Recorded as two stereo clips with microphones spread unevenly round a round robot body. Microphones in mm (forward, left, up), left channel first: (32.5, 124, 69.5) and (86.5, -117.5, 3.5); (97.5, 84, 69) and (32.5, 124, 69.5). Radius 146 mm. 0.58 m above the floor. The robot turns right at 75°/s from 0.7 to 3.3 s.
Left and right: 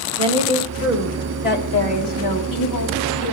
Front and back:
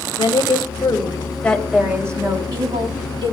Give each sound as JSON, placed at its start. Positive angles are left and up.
{"t": 0.2, "sound": "a woman speaking", "azimuth_deg": -15, "distance_m": 3.5}